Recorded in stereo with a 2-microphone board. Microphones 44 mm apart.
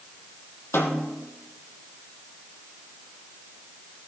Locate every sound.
0.7 s a snare drum: 65° left (ahead or behind), 1.6 m